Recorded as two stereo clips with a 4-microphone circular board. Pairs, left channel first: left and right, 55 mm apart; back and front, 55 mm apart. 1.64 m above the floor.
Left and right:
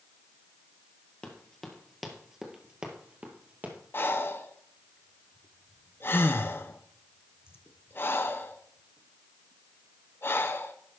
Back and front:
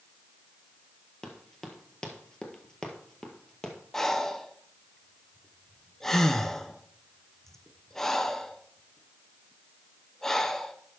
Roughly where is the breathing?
Left.